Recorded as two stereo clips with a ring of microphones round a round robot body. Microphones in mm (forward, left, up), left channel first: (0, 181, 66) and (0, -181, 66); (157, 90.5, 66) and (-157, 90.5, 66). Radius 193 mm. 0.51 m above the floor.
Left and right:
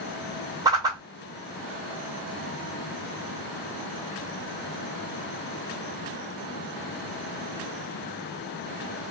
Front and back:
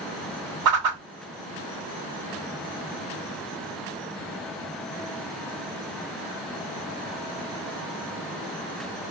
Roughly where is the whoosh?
Behind.